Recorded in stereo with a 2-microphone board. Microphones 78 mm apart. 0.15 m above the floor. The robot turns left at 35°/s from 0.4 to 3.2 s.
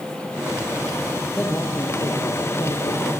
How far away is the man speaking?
About 3.5 m.